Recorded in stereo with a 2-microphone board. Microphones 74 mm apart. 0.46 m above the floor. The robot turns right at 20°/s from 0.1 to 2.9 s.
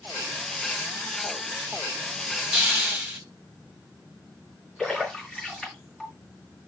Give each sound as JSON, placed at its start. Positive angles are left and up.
{"t": 2.5, "sound": "a hiss", "side_deg": -10, "distance_m": 3.0}
{"t": 4.8, "sound": "a splash", "side_deg": 5, "distance_m": 4.5}